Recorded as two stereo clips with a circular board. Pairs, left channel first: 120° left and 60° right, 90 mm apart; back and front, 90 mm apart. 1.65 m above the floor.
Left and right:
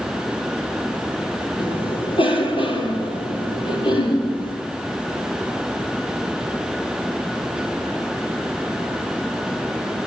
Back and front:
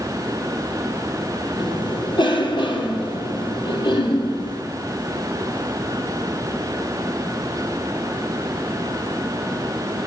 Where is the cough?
145° left, 5 m.